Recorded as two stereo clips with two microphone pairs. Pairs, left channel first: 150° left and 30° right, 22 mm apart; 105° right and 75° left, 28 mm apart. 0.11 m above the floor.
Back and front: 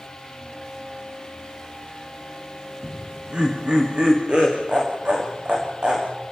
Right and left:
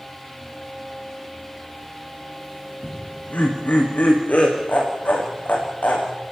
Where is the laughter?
75° right, 7 m.